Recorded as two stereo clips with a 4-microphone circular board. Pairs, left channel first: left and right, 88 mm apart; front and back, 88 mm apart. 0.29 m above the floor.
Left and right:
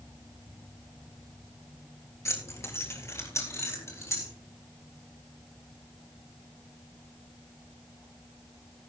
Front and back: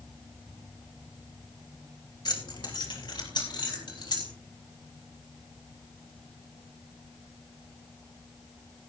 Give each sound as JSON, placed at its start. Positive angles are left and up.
{"t": 2.2, "sound": "keys jangling", "azimuth_deg": 35, "distance_m": 3.0}